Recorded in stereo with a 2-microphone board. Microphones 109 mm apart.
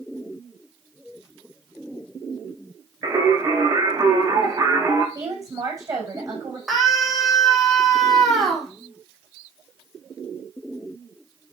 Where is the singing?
30° right (ahead or behind), 6 m.